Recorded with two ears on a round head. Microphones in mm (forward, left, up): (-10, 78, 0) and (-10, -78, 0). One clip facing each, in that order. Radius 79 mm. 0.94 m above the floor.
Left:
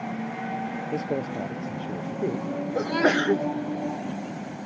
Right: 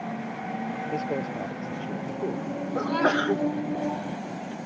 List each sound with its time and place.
0.9 s a man speaking: 10° left (ahead or behind); by 2.5 s 15° left (ahead or behind)
2.8 s a sneeze: 15° left (ahead or behind)